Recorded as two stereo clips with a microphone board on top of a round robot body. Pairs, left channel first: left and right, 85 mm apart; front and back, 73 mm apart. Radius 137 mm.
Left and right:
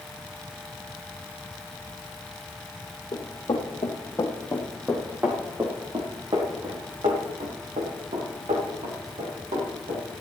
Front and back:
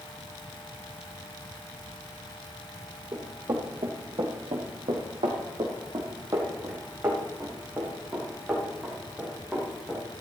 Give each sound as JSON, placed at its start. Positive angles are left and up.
{"t": 3.1, "sound": "running footsteps", "azimuth_deg": 135, "distance_m": 3.0}